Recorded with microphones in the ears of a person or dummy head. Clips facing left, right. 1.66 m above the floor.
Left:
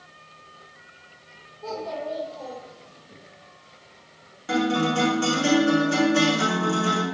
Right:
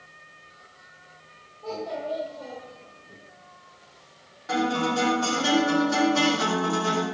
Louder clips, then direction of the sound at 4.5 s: Left 3 dB; 40° left (ahead or behind).